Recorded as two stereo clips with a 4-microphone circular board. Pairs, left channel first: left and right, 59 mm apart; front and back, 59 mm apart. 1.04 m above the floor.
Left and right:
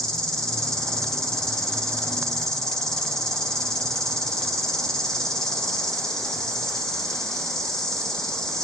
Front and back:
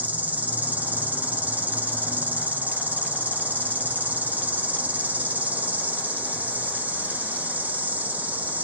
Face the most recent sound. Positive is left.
turn(degrees=160)